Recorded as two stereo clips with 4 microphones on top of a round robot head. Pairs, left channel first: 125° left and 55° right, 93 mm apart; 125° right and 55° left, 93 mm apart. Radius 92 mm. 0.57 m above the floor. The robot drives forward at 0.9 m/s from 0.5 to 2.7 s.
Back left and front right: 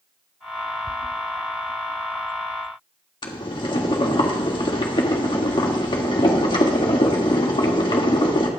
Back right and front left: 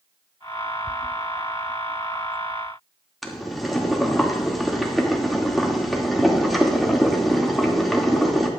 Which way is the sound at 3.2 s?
145° left.